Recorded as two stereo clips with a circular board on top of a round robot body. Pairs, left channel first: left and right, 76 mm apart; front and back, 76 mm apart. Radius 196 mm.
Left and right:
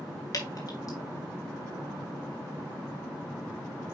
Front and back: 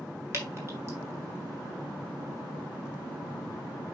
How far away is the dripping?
About 3 m.